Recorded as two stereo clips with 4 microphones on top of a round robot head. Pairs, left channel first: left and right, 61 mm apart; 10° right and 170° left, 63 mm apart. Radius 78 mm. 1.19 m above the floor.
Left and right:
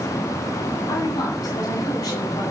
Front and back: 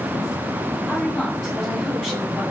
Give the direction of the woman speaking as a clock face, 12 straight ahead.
10 o'clock.